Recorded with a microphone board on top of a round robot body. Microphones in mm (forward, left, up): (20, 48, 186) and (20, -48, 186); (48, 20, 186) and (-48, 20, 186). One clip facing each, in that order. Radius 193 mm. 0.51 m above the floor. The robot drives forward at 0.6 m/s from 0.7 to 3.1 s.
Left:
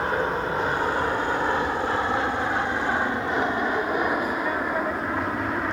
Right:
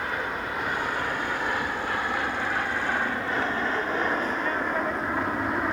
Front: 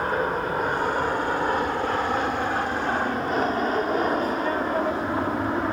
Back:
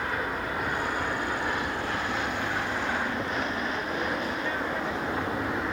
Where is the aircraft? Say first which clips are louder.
Left 6 dB, front 6 dB; 40° left; by 5.7 s 5° right.